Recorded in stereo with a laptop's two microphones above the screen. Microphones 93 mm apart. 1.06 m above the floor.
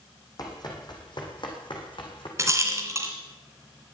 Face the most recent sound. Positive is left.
turn(degrees=-30)  # may be behind; listen again after turning